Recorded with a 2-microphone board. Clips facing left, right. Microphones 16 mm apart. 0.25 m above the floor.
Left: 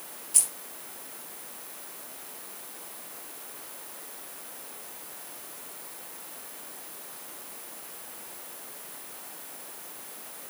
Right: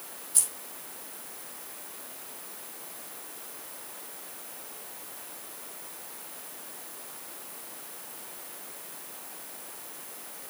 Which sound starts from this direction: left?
Keys jangling, at 0.3 s.